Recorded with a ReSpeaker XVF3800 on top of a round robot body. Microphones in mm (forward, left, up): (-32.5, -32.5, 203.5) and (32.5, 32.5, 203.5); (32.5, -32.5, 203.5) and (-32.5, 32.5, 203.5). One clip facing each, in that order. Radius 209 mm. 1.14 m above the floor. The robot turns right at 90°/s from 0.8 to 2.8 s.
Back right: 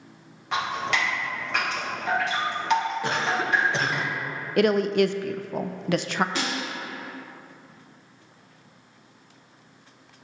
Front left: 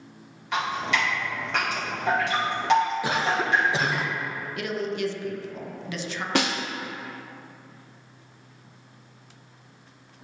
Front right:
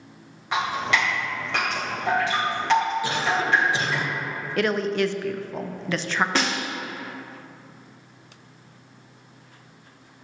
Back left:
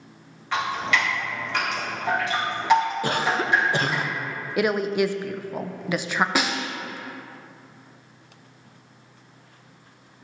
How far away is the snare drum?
About 1.0 m.